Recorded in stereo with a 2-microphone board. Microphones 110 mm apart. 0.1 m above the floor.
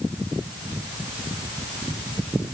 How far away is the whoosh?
No whoosh in this recording.